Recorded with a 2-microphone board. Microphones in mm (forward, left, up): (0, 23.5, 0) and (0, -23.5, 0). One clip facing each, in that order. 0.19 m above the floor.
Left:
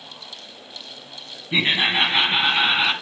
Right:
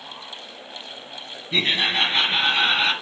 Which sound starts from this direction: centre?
Laughter, at 1.5 s.